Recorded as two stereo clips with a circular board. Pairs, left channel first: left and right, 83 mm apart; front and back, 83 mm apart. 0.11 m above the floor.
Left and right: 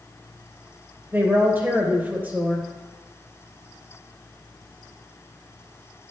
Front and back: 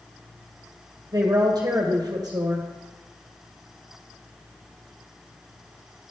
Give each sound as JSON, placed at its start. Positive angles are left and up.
{"t": 1.1, "sound": "a woman speaking", "azimuth_deg": -155, "distance_m": 2.5}